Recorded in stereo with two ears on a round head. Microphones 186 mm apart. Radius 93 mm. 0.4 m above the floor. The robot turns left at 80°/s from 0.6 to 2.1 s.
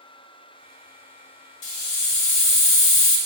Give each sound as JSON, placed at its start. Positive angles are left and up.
{"t": 1.6, "sound": "a hiss", "azimuth_deg": 105, "distance_m": 0.9}